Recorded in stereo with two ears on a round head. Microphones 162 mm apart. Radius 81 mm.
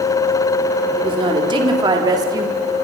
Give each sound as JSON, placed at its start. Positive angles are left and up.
{"t": 1.0, "sound": "a woman speaking", "side_deg": -30, "distance_m": 3.5}